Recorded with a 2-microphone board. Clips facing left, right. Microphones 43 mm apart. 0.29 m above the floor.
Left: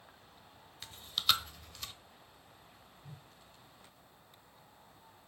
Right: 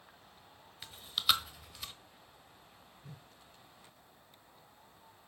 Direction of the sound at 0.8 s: 5° right (ahead or behind).